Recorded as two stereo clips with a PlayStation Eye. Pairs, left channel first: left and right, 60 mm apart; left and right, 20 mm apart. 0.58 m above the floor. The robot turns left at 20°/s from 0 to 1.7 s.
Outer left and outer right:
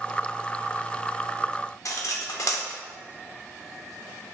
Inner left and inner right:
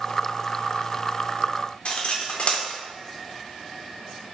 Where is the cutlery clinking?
55° left (ahead or behind), 0.6 m.